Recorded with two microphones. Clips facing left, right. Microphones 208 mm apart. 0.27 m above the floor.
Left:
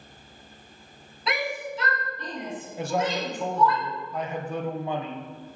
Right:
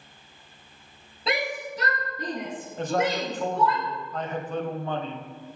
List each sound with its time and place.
1.3 s a shout: 30° right (ahead or behind), 1.8 m; by 3.8 s 60° right (ahead or behind), 3.5 m
2.8 s a man speaking: 10° left (ahead or behind), 1.3 m